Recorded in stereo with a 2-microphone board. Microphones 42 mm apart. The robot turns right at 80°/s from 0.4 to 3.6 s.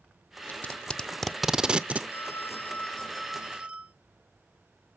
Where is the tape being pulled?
40° left (ahead or behind), 0.7 m; by 2.0 s 35° right (ahead or behind), 0.7 m.